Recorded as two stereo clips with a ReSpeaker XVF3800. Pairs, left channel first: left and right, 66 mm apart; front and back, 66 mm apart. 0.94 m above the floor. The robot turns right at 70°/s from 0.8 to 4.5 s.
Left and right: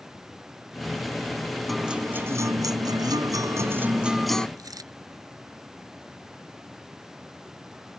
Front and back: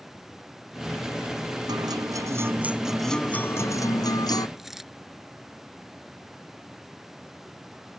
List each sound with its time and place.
1.7 s a guitar: straight behind; by 4.5 s 15° left
4.6 s a dropped coin: 95° right